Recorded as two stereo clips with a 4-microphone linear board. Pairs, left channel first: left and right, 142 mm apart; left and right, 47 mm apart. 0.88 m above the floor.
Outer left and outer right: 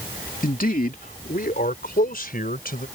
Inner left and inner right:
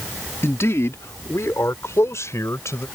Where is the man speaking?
65° left (ahead or behind); by 2.9 s 80° left.